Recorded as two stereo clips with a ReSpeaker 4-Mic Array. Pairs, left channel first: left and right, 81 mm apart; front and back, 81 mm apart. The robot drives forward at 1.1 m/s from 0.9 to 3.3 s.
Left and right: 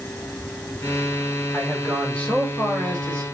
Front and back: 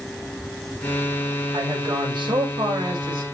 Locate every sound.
1.5 s a man speaking: 160° left, 3.5 m; by 3.2 s 170° left, 5 m